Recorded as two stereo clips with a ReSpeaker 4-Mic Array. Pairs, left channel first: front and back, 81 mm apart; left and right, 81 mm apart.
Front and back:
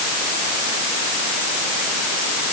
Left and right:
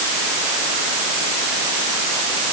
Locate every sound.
Only background noise.